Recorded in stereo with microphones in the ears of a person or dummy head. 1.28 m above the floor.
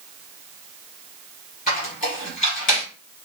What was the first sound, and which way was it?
A squeak, 55° left (ahead or behind).